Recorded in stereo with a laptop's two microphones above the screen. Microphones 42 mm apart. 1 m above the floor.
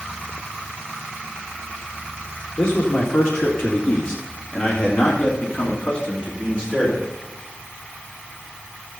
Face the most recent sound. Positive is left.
turn(degrees=25)  # may be behind; listen again after turning